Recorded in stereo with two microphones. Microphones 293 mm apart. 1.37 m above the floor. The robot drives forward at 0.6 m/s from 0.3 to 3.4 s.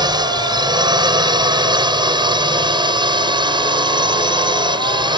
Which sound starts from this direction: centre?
A drone, at 0.0 s.